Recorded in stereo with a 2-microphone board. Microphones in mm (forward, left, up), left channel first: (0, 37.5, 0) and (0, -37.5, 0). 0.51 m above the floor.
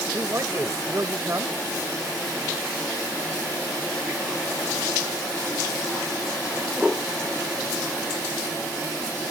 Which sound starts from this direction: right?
A man speaking, at 0.1 s.